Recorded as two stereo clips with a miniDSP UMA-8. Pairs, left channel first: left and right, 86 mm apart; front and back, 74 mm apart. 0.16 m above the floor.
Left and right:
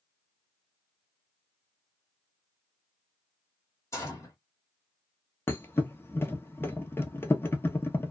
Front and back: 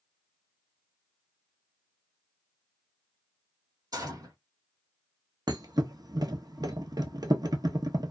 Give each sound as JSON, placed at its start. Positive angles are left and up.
{"t": 3.9, "sound": "a gunshot", "azimuth_deg": 145, "distance_m": 1.1}
{"t": 5.5, "sound": "a thud", "azimuth_deg": 150, "distance_m": 0.6}